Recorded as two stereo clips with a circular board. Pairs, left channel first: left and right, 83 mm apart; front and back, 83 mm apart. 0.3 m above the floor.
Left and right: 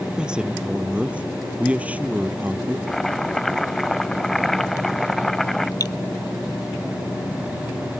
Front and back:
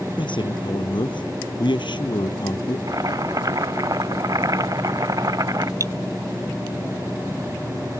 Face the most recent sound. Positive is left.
turn(degrees=130)